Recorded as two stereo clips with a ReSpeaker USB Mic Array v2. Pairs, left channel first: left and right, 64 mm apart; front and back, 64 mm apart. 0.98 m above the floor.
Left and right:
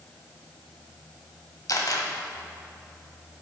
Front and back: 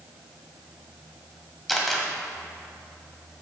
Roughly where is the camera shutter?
Left.